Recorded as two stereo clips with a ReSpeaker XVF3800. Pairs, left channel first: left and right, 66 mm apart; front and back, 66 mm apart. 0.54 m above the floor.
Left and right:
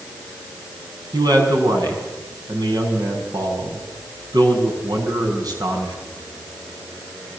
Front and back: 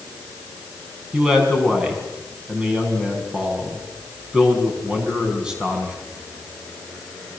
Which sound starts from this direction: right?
A man speaking, at 1.1 s.